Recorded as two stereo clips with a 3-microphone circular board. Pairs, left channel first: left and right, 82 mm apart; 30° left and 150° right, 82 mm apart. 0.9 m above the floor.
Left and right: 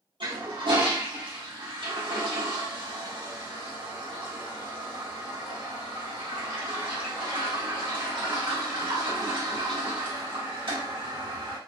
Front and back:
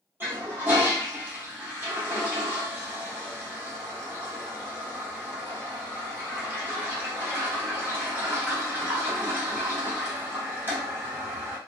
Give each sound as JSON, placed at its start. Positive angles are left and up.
{"t": 0.2, "sound": "a toilet flushing", "azimuth_deg": -85, "distance_m": 1.3}